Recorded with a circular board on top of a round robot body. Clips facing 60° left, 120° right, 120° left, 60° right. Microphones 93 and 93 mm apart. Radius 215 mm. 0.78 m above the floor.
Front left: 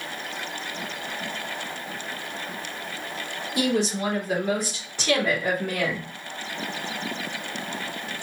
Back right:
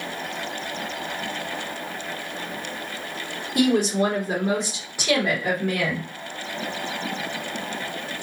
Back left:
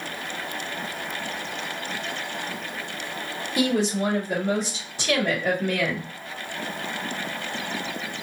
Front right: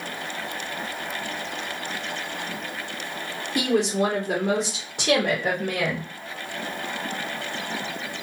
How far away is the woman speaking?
About 1.2 m.